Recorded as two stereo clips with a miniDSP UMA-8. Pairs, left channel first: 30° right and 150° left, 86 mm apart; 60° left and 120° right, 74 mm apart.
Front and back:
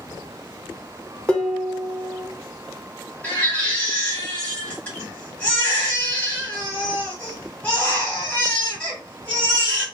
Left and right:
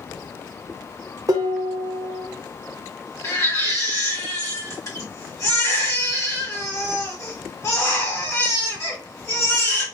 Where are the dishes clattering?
105° right, 0.8 m.